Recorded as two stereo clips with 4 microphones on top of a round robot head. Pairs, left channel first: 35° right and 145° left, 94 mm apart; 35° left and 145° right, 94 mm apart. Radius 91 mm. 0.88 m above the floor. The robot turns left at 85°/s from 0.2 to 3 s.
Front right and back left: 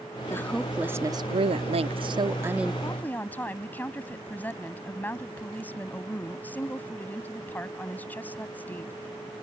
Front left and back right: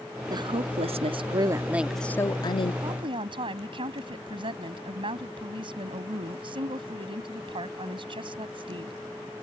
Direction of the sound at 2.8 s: 95° right.